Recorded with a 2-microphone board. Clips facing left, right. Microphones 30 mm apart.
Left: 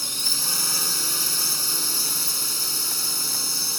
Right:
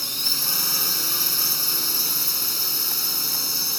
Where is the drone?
15° right (ahead or behind).